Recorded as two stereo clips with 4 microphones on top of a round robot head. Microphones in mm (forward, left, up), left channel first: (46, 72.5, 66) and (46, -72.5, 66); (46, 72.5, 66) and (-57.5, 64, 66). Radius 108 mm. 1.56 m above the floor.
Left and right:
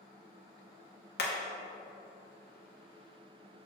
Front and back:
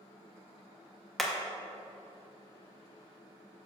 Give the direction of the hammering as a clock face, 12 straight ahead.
9 o'clock.